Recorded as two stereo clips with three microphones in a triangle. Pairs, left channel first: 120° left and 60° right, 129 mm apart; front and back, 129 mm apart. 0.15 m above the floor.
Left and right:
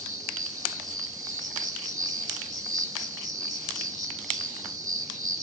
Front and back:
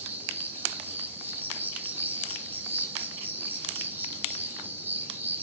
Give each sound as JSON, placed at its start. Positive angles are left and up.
{"t": 0.0, "sound": "an insect", "azimuth_deg": -110, "distance_m": 3.0}